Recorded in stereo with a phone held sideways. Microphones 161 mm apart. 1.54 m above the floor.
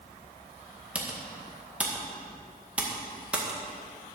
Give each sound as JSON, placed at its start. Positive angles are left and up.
{"t": 0.9, "sound": "typing on a keyboard", "side_deg": -5, "distance_m": 1.7}